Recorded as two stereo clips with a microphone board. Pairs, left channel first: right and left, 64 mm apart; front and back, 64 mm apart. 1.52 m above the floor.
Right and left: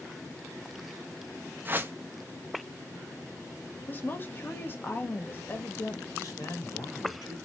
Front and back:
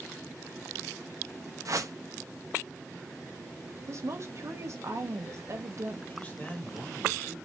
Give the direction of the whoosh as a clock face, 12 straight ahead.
7 o'clock.